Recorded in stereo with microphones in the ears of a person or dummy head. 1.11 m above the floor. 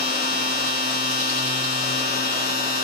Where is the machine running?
45° left (ahead or behind), 2.5 m.